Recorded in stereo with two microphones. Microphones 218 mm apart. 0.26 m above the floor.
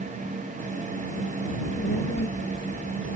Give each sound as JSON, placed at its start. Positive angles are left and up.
{"t": 1.5, "sound": "a child speaking", "side_deg": 40}